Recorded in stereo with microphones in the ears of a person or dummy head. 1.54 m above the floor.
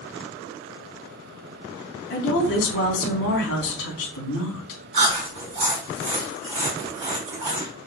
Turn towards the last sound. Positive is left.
turn(degrees=-35)  # may be behind; listen again after turning